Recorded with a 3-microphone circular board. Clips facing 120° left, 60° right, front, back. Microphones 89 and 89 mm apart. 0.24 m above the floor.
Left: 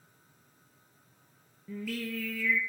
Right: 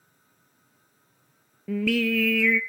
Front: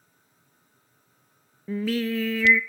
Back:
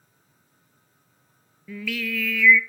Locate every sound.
1.7 s singing: 55° right, 0.9 m